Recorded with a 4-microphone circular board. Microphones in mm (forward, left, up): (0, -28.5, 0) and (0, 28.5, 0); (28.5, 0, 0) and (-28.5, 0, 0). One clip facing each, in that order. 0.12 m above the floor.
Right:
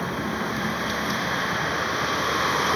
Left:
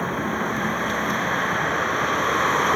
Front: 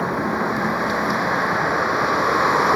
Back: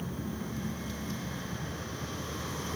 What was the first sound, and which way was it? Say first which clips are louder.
A vehicle: left 3 dB, front 17 dB; 10° left.